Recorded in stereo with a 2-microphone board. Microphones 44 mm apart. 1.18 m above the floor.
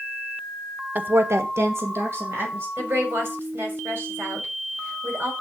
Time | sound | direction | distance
0.9 | a woman speaking | 40° right (ahead or behind) | 0.9 m
2.8 | a woman speaking | 50° right (ahead or behind) | 3.5 m